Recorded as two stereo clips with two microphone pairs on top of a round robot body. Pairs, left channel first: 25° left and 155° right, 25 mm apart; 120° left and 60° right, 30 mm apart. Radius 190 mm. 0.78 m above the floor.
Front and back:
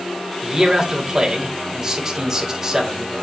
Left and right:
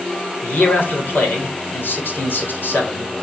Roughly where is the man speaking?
Behind left.